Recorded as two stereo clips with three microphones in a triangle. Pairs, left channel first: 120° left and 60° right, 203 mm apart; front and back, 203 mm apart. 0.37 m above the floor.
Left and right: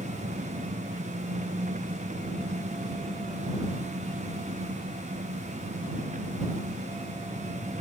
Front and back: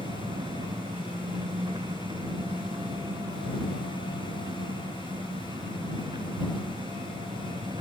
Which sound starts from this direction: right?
An engine running, at 0.0 s.